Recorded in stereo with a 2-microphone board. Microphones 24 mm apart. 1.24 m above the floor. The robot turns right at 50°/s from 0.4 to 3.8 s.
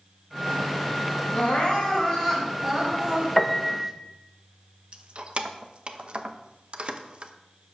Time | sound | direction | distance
1.3 | crying | 120° left | 2.5 m
3.4 | a piano | 10° left (ahead or behind) | 0.8 m
4.9 | keys jangling | 45° right (ahead or behind) | 0.8 m